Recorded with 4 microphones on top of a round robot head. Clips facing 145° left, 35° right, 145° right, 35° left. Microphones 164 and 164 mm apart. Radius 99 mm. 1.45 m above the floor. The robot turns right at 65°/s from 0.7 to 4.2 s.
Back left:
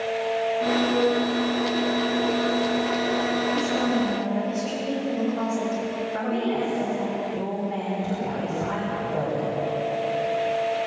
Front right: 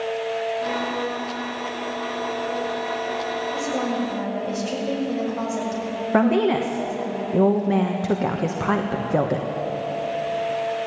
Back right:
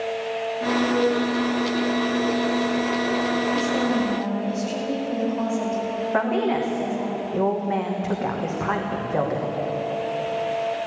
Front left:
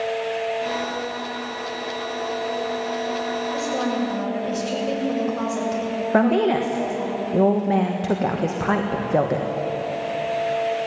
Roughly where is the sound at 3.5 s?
Ahead right.